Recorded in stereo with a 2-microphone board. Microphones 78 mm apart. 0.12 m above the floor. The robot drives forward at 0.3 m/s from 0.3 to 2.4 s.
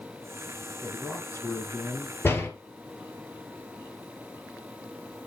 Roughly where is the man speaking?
Left.